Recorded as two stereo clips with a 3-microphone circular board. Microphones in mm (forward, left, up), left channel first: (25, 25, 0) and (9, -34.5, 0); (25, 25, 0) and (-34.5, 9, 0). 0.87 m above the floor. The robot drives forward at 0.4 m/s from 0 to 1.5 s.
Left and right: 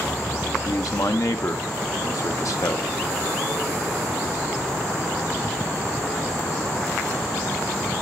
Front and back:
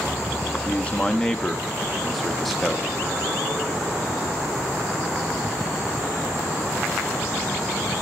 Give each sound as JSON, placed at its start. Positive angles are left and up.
{"t": 0.7, "sound": "a man speaking", "azimuth_deg": 80, "distance_m": 0.9}